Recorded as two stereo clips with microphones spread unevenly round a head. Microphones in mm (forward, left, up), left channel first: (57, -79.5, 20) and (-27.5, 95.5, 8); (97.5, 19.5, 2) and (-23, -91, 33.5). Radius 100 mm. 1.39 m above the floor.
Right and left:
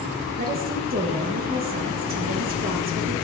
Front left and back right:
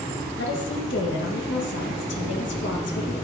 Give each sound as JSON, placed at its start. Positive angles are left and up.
{"t": 0.4, "sound": "a woman speaking", "azimuth_deg": 70, "distance_m": 1.2}